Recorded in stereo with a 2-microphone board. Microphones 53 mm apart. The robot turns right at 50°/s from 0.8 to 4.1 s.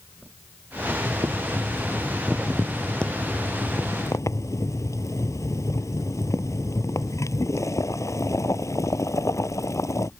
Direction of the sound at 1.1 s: 80° right.